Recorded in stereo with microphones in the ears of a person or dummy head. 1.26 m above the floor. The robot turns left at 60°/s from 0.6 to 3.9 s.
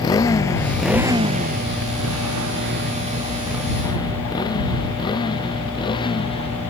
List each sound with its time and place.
0.0 s a motorcycle: 25° left (ahead or behind); by 6.7 s 30° left (ahead or behind)